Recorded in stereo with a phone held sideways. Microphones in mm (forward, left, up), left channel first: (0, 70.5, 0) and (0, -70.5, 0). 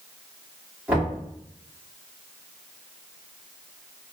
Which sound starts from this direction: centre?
Knocking, at 0.9 s.